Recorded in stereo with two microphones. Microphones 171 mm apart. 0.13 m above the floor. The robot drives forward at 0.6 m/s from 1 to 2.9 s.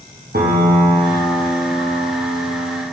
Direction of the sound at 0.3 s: 60° right (ahead or behind).